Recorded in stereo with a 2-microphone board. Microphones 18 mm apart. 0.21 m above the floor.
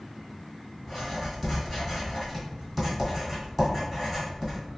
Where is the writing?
5° right (ahead or behind), 1.7 m.